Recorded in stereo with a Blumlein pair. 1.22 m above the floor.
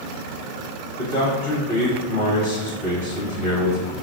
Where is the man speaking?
60° left, 1.4 m.